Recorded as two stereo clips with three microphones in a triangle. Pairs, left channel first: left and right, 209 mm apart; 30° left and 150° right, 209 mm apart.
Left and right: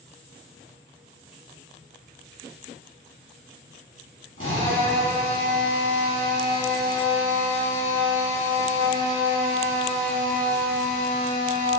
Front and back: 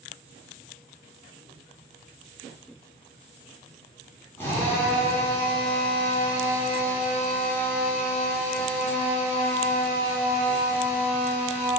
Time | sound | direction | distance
4.4 | a drill | 110° left | 2.5 m